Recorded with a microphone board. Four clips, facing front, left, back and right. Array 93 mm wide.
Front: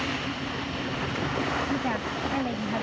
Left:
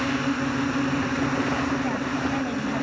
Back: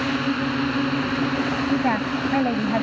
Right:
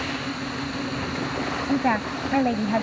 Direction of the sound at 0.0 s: 155° left.